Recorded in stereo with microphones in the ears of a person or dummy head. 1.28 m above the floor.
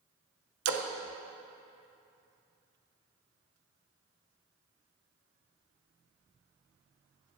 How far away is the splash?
About 0.7 m.